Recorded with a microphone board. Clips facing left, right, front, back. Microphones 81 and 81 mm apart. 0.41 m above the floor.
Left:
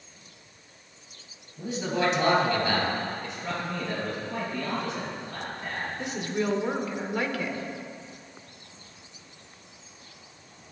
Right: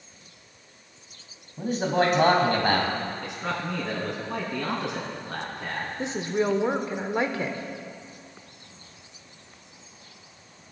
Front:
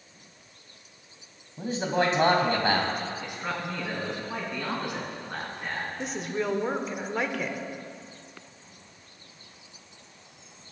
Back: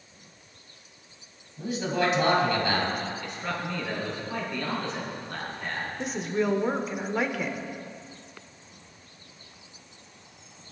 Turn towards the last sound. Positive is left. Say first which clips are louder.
# right 4 dB, back 4 dB
turn(degrees=-95)